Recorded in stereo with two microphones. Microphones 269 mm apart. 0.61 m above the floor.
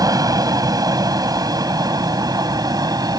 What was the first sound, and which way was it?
An aircraft, 15° right (ahead or behind).